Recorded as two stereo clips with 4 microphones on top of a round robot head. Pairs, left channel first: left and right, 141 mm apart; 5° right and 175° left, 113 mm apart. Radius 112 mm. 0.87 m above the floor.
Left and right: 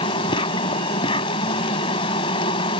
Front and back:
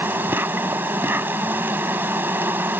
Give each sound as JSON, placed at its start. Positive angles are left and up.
{"t": 0.0, "sound": "an insect", "azimuth_deg": 115}